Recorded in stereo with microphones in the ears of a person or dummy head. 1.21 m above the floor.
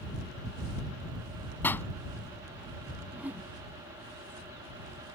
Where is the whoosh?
10° right (ahead or behind).